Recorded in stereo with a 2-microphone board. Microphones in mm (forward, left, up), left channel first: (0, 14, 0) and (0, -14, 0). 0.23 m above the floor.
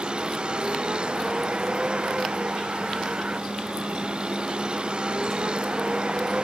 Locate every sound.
0.0 s a vehicle: 35° right (ahead or behind)